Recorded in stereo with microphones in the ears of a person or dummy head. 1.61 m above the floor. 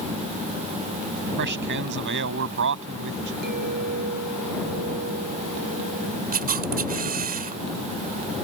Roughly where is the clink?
Right.